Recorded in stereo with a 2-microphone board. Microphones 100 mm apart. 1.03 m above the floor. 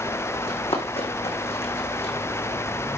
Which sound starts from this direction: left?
Running footsteps, at 0.5 s.